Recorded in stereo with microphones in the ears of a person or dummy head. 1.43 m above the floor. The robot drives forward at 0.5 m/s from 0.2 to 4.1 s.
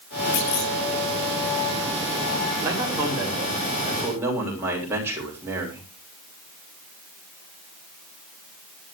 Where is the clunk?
55° left (ahead or behind), 1.6 m; by 0.7 s 50° left (ahead or behind), 1.7 m.